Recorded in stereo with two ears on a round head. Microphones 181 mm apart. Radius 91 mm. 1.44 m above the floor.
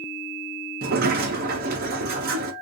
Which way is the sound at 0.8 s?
45° right (ahead or behind).